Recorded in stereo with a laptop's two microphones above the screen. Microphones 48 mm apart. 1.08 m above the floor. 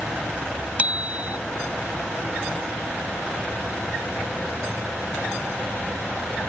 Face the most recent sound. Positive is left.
turn(degrees=-30)  # may be behind; listen again after turning